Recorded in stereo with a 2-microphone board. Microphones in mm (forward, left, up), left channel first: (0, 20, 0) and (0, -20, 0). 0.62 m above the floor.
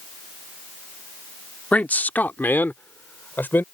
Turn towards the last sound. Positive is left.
turn(degrees=65)  # may be behind; listen again after turning